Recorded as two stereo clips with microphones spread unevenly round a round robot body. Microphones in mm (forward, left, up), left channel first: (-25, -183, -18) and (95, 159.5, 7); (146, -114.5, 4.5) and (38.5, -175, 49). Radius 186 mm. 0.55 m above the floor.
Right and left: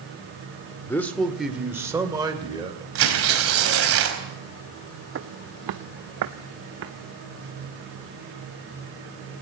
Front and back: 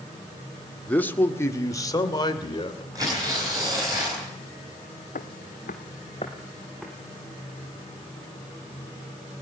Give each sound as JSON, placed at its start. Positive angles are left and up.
{"t": 0.9, "sound": "a man speaking", "azimuth_deg": -30, "distance_m": 1.9}
{"t": 3.0, "sound": "tearing paper", "azimuth_deg": 125, "distance_m": 4.0}
{"t": 5.2, "sound": "footsteps", "azimuth_deg": 20, "distance_m": 1.1}